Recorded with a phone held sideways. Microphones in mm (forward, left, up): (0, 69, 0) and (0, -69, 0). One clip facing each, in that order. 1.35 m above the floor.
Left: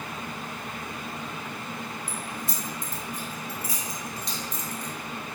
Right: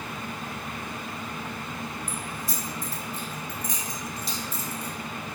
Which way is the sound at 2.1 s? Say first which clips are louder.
Even; 35° left (ahead or behind).